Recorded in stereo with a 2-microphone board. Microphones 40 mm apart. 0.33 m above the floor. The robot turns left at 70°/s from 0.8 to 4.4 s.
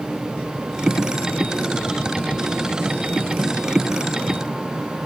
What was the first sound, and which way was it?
Only background noise.